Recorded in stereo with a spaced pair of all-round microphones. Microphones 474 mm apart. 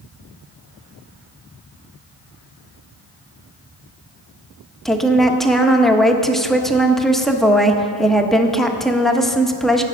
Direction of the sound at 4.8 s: Centre (ahead or behind).